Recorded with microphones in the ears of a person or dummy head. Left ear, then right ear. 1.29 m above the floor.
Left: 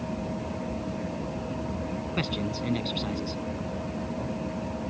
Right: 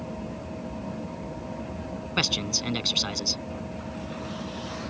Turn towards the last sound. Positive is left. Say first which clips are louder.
# right 8 dB
turn(degrees=-60)  # may be behind; listen again after turning